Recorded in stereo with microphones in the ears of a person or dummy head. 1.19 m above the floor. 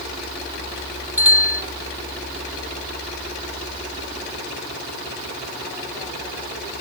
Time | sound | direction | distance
1.2 | a bicycle bell | 10° right (ahead or behind) | ?